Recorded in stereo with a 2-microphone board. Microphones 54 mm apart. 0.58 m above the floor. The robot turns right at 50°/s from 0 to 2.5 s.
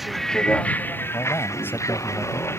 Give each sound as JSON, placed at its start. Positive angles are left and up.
{"t": 0.0, "sound": "a vehicle", "azimuth_deg": -5}
{"t": 1.1, "sound": "a man speaking", "azimuth_deg": 105}